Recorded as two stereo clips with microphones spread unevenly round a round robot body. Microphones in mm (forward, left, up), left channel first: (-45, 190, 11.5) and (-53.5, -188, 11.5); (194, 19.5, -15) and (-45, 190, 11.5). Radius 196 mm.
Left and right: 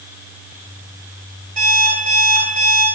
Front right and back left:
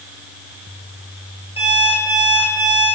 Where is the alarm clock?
110° right, 7.5 m.